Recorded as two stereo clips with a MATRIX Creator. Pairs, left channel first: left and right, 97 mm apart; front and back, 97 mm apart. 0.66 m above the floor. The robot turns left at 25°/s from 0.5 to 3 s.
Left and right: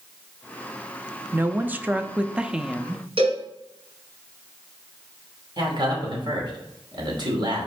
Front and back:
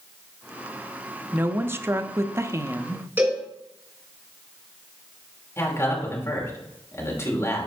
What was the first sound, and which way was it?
A woman speaking, 135° right.